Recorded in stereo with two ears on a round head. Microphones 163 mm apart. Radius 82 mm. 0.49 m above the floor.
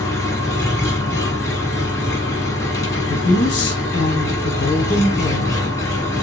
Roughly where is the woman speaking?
Left.